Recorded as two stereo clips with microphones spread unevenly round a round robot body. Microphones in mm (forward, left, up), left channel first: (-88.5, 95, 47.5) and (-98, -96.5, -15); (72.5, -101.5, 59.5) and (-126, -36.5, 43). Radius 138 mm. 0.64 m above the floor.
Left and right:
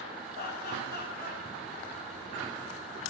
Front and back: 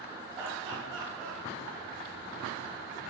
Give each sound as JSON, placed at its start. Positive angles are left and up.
{"t": 0.3, "sound": "laughter", "azimuth_deg": 80, "distance_m": 6.5}